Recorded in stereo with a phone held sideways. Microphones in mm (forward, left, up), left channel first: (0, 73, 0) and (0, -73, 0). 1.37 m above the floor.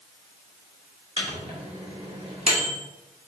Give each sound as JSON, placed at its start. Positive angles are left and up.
{"t": 1.2, "sound": "a microwave", "side_deg": -45, "distance_m": 1.4}